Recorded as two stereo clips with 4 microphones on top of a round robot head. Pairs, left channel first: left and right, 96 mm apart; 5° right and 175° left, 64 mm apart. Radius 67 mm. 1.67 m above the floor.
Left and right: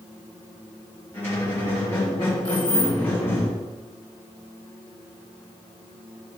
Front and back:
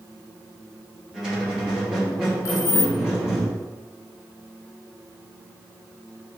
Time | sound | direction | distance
1.1 | a squeak | 125° left | 1.2 m
2.5 | keys jangling | 35° left | 1.3 m